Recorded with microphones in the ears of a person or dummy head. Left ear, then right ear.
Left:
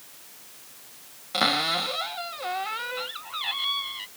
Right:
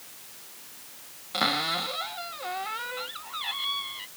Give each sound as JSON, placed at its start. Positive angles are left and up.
{"t": 1.3, "sound": "a cupboard door", "side_deg": 0}